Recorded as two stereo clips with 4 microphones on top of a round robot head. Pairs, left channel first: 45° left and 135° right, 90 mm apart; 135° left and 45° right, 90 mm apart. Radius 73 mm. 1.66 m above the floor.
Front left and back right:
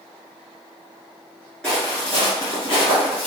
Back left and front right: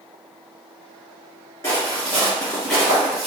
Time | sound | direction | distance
1.6 | footsteps | 120° left | 1.6 m